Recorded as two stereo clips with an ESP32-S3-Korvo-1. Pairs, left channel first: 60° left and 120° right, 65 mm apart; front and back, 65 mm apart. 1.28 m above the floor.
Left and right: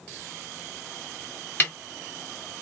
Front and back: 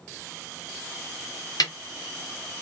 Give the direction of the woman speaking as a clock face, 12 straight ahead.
No woman speaking in this recording.